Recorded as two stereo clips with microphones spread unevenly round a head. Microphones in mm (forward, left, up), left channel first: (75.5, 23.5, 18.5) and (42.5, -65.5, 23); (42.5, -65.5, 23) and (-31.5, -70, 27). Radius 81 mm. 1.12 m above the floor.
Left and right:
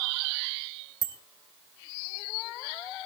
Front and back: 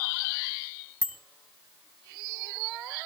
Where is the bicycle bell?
75° right, 3.5 m.